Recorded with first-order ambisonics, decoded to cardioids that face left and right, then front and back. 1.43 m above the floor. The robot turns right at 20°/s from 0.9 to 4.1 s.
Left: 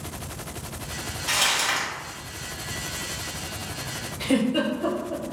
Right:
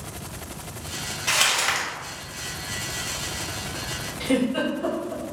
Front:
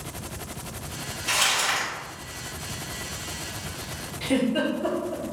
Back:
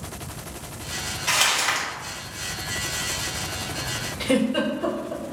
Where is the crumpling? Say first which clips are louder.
Right 1 dB, back 2 dB; 130° right, 1.0 m; by 1.9 s 120° right, 1.0 m.